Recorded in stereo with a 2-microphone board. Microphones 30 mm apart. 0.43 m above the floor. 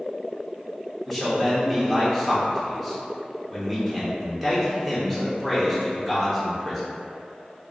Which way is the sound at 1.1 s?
10° right (ahead or behind).